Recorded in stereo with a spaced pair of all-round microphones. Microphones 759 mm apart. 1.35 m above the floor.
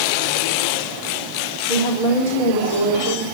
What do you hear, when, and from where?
1.7 s a woman speaking: 60° left (ahead or behind), 4 m; by 3.2 s 40° left (ahead or behind), 5 m